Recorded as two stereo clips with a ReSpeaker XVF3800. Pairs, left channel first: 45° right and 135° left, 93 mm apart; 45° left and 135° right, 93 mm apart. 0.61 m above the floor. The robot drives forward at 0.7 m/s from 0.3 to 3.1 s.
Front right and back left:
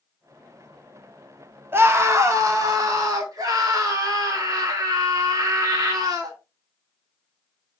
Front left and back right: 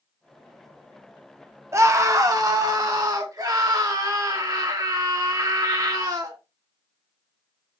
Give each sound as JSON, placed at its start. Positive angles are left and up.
{"t": 1.7, "sound": "a scream", "azimuth_deg": -175, "distance_m": 0.8}